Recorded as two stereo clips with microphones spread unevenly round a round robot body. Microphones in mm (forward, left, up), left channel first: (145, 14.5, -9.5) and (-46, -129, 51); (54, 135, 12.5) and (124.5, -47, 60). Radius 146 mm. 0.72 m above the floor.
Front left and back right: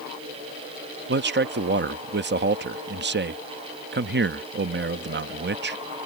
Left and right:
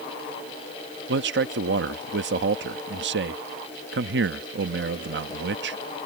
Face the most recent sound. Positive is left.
turn(degrees=-95)